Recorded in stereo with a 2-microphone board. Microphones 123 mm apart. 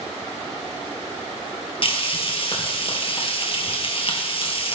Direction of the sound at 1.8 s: 45° left (ahead or behind).